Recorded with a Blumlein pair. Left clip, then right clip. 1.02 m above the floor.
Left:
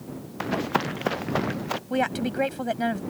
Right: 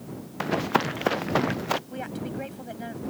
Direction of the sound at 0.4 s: 5° right.